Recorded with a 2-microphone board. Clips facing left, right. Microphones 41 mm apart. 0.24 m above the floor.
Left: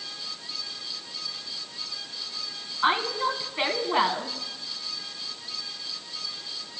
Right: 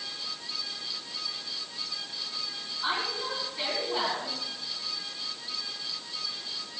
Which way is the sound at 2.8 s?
50° left (ahead or behind).